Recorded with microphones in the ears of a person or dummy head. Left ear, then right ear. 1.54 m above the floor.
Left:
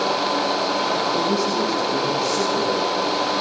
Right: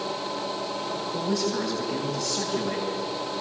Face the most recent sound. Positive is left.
turn(degrees=-50)  # may be behind; listen again after turning